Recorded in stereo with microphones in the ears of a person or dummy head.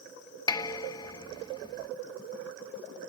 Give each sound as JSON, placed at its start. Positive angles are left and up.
{"t": 0.5, "sound": "dishes clattering", "side_deg": 25}